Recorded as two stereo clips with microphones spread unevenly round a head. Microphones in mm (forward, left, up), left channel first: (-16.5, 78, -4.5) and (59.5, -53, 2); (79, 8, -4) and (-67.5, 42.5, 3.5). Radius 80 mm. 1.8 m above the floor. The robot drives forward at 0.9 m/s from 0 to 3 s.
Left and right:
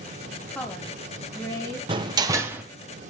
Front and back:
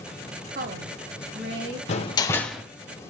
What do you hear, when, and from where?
0.5 s a woman speaking: 155° right, 1.1 m; by 1.8 s 170° right, 2 m
1.9 s a door slam: 25° right, 0.9 m; by 2.6 s 125° right, 0.8 m